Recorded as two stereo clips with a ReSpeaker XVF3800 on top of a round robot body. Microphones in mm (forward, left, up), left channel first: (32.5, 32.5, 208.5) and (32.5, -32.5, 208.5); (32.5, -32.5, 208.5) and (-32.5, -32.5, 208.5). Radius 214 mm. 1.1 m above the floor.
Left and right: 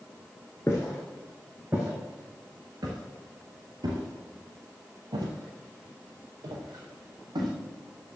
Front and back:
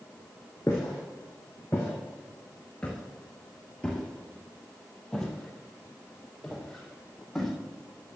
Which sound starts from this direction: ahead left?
Footsteps, at 0.7 s.